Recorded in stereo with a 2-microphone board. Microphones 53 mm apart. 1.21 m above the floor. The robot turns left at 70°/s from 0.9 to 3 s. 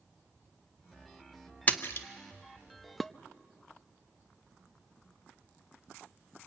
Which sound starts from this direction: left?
A splash, at 1.7 s.